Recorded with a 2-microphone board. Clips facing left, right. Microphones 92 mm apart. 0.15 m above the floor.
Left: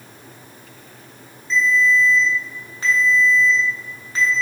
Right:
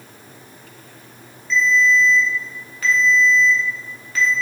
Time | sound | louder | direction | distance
1.5 | a ringtone | right 1 dB | 30° left (ahead or behind) | 0.7 m